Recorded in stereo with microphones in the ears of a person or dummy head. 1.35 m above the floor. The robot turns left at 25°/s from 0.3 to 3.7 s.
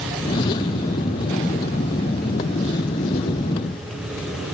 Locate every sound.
Only background noise.